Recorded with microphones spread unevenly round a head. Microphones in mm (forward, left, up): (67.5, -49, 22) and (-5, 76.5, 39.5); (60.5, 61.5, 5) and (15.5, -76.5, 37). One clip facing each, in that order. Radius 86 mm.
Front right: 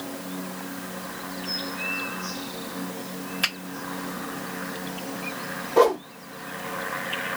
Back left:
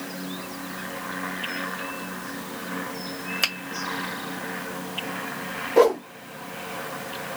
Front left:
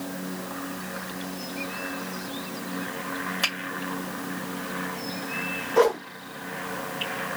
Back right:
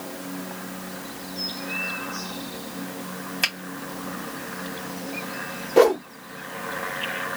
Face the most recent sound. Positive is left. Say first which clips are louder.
# back left 1 dB, back right 4 dB
turn(degrees=-165)